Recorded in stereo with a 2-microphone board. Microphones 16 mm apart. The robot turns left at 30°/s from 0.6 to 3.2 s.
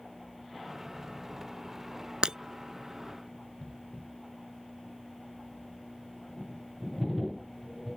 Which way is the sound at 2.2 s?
65° right (ahead or behind).